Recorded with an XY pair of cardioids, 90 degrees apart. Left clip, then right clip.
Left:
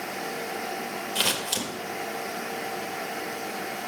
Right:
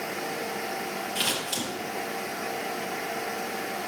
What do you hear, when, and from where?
1.1 s scissors: 65° left, 1.6 m